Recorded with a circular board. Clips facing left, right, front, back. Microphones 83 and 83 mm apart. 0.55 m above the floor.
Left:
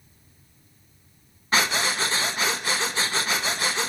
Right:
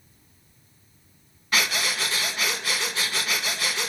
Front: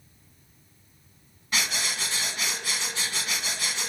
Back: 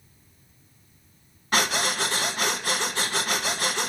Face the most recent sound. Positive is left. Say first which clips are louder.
# left 3 dB, back 6 dB
turn(degrees=150)